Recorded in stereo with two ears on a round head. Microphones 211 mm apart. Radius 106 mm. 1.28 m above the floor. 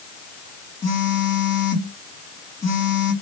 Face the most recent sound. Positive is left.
turn(degrees=20)  # may be behind; listen again after turning